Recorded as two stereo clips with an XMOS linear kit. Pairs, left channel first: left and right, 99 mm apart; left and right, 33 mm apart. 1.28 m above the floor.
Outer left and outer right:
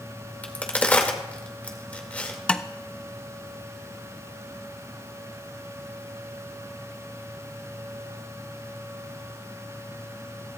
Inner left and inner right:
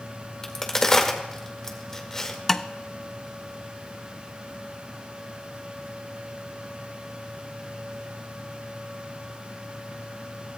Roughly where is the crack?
Centre.